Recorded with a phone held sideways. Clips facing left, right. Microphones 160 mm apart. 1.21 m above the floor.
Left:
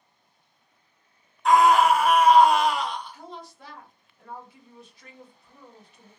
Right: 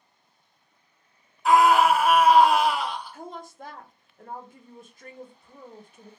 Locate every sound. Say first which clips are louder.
1.4 s a scream: even; 5° right (ahead or behind), 0.8 m
3.1 s a woman speaking: right 3 dB; 50° right (ahead or behind), 0.6 m